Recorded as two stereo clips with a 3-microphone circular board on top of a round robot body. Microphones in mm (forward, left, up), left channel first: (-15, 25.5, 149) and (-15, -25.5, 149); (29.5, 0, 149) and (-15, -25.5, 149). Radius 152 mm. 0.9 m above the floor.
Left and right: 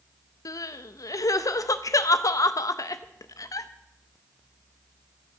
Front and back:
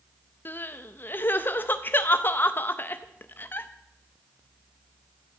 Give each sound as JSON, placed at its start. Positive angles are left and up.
{"t": 0.5, "sound": "crying", "azimuth_deg": 85, "distance_m": 0.6}